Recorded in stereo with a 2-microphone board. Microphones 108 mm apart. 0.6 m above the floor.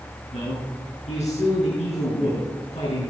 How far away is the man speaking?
About 8 m.